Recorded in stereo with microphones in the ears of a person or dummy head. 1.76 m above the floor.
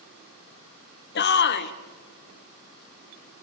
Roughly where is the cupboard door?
I don't hear a cupboard door.